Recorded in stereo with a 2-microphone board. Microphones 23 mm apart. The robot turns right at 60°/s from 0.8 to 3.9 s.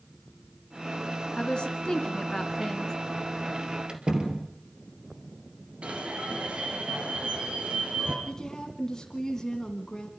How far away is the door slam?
About 2.5 m.